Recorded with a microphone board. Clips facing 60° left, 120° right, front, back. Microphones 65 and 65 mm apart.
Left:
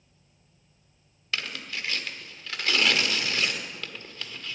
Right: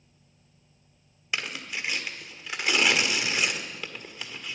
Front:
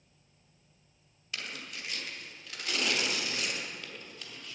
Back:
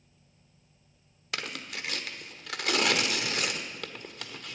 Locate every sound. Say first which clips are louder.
1.3 s tearing paper: right 1 dB, back 4 dB; 165° left, 1.2 m